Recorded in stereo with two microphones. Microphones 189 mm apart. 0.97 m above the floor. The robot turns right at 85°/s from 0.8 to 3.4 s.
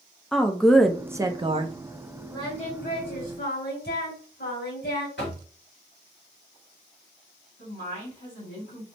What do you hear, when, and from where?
0.3 s a woman speaking: 175° left, 0.6 m; by 1.8 s 105° right, 0.6 m
2.3 s singing: 15° left, 2 m; by 5.1 s 105° left, 2 m
5.2 s knocking: 75° left (ahead or behind), 1.5 m
7.6 s a woman speaking: 75° left (ahead or behind), 2 m